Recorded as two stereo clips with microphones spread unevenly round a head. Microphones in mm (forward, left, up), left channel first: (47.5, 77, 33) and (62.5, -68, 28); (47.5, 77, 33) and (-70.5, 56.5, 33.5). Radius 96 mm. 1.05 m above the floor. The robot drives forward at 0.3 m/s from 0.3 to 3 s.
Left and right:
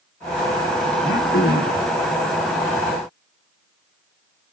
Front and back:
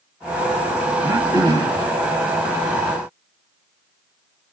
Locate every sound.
1.0 s throat clearing: 125° left, 1.0 m; by 1.9 s 135° left, 1.2 m